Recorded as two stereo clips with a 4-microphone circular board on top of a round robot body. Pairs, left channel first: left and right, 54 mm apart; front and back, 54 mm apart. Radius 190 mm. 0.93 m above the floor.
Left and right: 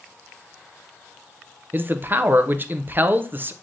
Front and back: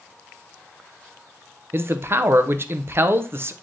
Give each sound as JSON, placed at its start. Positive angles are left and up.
{"t": 1.7, "sound": "a man speaking", "azimuth_deg": -140, "distance_m": 0.5}